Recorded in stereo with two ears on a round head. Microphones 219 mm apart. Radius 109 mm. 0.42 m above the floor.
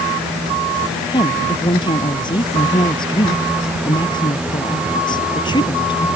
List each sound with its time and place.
1.1 s a woman speaking: 20° left (ahead or behind)